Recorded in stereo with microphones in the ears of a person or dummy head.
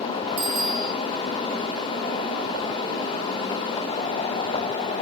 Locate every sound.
0.4 s a bicycle bell: 60° right (ahead or behind), 5 m